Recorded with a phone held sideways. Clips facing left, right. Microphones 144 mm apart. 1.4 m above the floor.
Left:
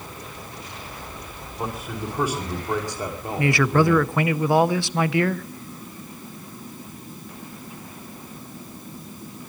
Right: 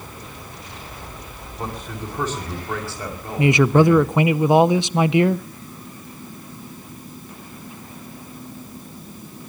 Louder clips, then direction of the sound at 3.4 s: Right 5 dB; 20° right (ahead or behind).